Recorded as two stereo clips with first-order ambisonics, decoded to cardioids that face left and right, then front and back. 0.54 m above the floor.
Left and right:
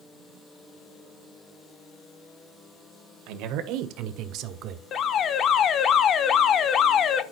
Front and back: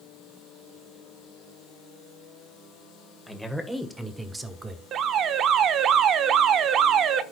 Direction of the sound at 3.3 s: 85° right.